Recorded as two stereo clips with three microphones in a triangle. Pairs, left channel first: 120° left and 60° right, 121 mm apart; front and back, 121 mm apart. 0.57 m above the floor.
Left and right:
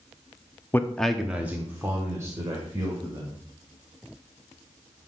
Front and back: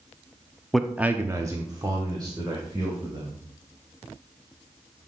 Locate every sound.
0.7 s a man speaking: 85° left, 0.7 m; by 3.4 s 120° right, 3 m